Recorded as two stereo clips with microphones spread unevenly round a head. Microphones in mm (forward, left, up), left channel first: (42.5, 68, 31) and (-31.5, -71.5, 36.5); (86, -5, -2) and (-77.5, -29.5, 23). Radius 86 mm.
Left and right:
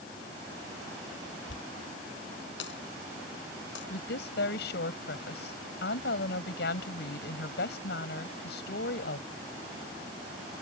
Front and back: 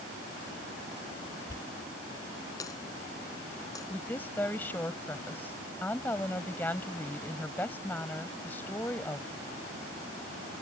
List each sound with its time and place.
1.5 s a dropped coin: 85° left
3.9 s a woman speaking: 90° left